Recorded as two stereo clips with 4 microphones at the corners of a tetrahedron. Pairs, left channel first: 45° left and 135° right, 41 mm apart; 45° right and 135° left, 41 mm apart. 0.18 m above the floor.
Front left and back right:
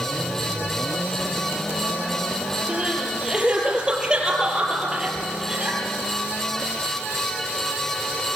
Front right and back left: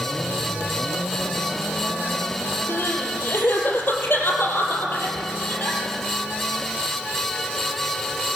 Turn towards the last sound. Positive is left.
turn(degrees=-65)